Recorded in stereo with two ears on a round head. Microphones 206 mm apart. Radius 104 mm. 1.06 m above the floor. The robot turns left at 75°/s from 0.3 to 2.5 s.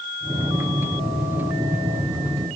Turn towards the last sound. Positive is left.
No sound to turn to.